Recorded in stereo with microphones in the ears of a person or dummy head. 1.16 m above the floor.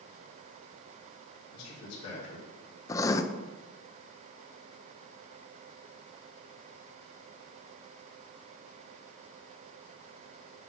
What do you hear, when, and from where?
1.5 s a man speaking: 75° left (ahead or behind), 3.5 m
2.9 s writing: 20° left (ahead or behind), 0.5 m